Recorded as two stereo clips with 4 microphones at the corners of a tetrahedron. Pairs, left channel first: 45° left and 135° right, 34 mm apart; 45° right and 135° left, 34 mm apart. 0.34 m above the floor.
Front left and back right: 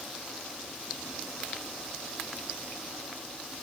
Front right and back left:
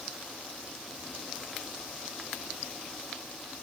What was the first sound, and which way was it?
Only background noise.